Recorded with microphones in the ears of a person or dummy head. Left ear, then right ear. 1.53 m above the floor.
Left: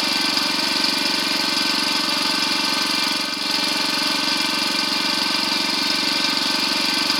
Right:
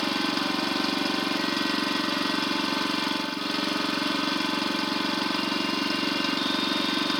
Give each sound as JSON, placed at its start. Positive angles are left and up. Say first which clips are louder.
{"t": 0.0, "sound": "an engine running", "louder": "left 7 dB", "side_deg": 40}